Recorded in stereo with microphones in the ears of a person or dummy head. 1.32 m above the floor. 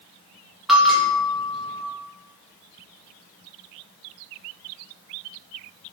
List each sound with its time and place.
0.7 s a bell: centre (ahead or behind), 0.8 m